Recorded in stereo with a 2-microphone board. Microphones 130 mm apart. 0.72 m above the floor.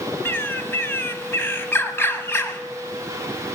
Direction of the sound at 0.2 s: 20° left (ahead or behind).